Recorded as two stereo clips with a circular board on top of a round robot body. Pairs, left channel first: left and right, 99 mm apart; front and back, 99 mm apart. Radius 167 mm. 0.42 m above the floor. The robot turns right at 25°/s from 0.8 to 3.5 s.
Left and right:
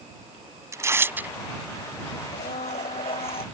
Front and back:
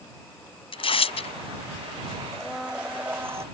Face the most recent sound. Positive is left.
turn(degrees=120)